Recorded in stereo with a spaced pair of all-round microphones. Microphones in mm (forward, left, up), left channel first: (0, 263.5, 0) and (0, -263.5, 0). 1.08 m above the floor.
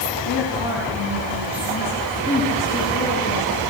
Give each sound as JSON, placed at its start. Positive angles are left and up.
{"t": 0.2, "sound": "a woman speaking", "side_deg": 50, "distance_m": 9.0}